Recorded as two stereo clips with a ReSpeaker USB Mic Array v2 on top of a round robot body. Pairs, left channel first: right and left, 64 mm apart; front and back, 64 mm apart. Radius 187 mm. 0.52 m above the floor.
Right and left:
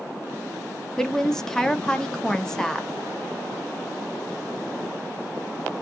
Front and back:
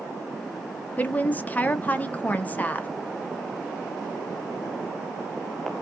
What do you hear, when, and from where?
1.0 s a woman speaking: 20° right, 0.8 m